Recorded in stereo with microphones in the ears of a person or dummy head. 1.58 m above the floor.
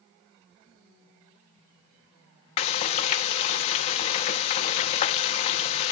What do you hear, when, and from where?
2.6 s frying: 40° left (ahead or behind), 1.0 m